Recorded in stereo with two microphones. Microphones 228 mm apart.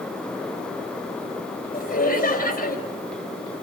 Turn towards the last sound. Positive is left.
turn(degrees=35)  # may be behind; listen again after turning